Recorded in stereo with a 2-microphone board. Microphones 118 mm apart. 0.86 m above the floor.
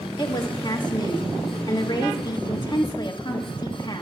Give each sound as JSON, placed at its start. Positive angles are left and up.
{"t": 0.2, "sound": "a woman speaking", "side_deg": 40, "distance_m": 1.6}